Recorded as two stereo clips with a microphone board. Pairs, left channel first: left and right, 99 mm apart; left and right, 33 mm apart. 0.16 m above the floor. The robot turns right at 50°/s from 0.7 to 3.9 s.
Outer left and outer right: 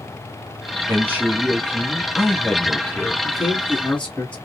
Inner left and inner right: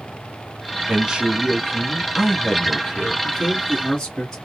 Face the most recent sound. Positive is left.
turn(degrees=10)  # may be behind; listen again after turning